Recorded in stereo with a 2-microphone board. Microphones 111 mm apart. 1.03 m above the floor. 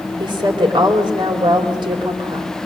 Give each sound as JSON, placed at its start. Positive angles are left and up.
{"t": 0.2, "sound": "a woman speaking", "side_deg": -45, "distance_m": 3.5}